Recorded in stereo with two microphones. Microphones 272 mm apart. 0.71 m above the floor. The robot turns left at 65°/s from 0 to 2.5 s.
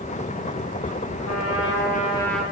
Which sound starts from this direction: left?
A trumpet, at 1.2 s.